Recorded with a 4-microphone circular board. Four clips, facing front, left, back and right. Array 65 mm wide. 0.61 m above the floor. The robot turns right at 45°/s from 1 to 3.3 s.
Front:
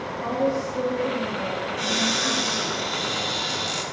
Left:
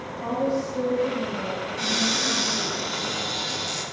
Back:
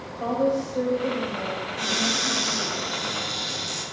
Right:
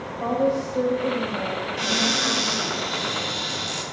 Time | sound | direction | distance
0.2 | a woman speaking | 140° right | 1.9 m
1.8 | a cupboard door | 110° right | 1.7 m